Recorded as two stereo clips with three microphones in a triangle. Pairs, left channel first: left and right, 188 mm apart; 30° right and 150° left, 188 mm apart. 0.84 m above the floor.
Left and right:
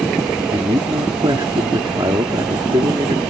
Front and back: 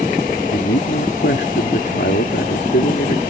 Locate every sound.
0.5 s a man speaking: 25° right